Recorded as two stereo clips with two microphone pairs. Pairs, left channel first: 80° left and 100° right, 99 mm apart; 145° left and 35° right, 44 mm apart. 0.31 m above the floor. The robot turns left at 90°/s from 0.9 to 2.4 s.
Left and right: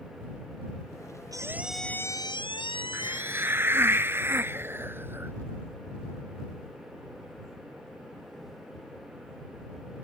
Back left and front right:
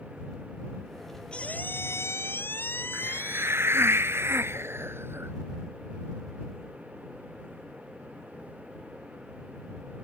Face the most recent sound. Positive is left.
turn(degrees=-30)